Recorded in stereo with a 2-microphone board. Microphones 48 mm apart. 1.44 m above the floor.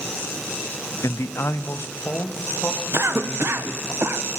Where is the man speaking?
75° left (ahead or behind), 0.5 m; by 3.9 s 55° left (ahead or behind), 4 m.